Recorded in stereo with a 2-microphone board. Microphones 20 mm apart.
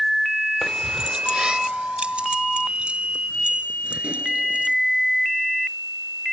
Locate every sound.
0.6 s keys jangling: 15° left (ahead or behind); by 4.8 s 70° right (ahead or behind)